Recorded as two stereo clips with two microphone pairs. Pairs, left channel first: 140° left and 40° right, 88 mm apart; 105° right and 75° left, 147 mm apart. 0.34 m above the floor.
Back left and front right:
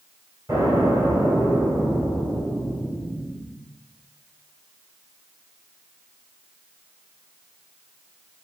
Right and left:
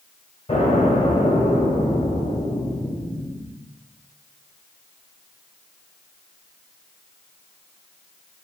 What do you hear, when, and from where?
0.5 s an explosion: 75° right, 1.4 m